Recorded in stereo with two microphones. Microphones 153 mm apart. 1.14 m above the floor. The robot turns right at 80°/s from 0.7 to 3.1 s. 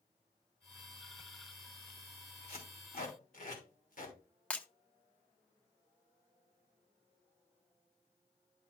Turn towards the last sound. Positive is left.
turn(degrees=10)  # may be behind; listen again after turning